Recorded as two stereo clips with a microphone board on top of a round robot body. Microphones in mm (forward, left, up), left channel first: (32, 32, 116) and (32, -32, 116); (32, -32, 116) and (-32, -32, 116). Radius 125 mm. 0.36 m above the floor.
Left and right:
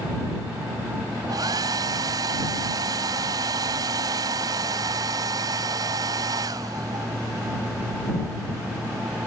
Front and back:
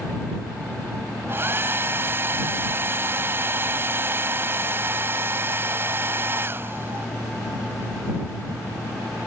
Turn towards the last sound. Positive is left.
turn(degrees=-125)